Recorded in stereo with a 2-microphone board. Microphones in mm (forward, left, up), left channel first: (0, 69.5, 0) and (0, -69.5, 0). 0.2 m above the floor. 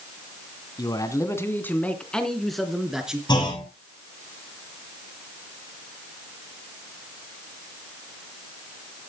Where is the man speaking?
30° left (ahead or behind), 1.7 m; by 3.2 s 5° right (ahead or behind), 3 m.